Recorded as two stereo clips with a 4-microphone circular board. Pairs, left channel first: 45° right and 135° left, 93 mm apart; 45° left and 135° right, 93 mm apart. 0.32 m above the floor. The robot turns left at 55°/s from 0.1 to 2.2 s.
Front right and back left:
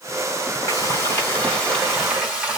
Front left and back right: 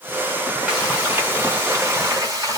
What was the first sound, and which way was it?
Frying, 60° right.